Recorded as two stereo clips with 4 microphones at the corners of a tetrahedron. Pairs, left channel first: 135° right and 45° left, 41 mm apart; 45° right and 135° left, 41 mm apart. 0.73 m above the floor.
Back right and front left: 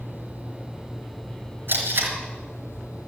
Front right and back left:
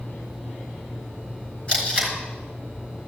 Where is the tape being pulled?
20° left, 4 m.